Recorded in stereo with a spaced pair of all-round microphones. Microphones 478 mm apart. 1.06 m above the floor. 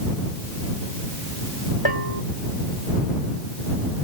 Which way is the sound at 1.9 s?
65° left (ahead or behind).